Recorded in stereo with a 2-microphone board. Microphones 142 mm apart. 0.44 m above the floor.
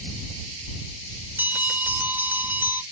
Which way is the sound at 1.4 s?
15° right (ahead or behind).